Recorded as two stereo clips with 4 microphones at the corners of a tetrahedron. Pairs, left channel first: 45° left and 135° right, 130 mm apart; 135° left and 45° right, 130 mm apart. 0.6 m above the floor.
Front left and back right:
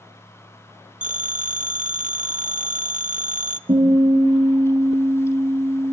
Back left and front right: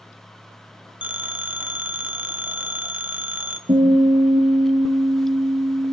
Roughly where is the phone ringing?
Behind right.